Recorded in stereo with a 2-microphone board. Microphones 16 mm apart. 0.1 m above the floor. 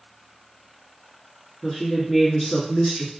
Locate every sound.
1.6 s a woman speaking: 20° left (ahead or behind), 1.2 m